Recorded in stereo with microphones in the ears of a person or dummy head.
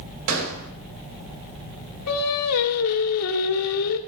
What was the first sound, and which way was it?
A gunshot, 80° right.